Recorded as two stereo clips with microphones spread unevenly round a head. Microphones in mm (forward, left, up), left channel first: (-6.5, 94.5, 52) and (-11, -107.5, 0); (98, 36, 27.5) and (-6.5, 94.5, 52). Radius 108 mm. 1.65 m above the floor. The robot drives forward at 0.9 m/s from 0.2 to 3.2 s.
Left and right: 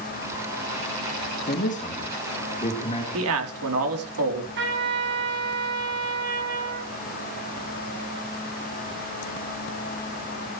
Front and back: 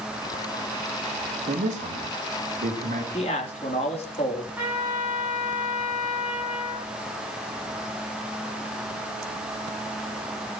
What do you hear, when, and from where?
1.5 s a man speaking: 135° left, 2.5 m; by 3.0 s 150° left, 4 m
3.1 s a man speaking: 85° right, 4 m
4.6 s a trumpet: 130° right, 7.5 m